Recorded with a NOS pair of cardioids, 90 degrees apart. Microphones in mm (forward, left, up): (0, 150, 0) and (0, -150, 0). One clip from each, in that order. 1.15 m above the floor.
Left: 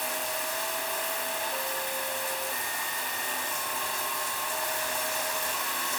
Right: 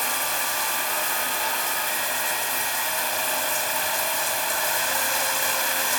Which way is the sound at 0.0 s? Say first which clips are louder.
Right 6 dB; 45° right.